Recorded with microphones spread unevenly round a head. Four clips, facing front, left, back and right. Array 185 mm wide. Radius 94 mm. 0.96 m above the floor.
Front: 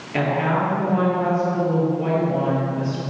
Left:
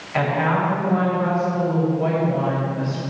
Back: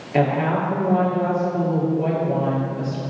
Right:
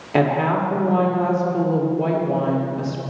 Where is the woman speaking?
100° right, 1.8 m.